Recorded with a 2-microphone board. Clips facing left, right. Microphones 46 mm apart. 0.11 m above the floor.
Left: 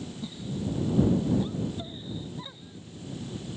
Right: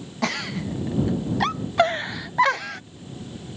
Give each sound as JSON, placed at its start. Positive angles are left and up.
{"t": 0.2, "sound": "a giggle", "side_deg": -85}